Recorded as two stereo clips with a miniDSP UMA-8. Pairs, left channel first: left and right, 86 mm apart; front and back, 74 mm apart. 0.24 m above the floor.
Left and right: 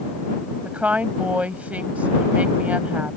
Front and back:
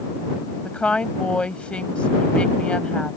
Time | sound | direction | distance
0.7 | a woman speaking | 50° right | ?